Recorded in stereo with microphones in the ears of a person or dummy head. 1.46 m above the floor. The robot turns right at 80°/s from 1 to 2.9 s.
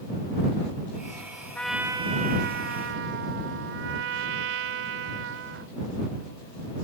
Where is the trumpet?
170° left; by 5.7 s 80° right.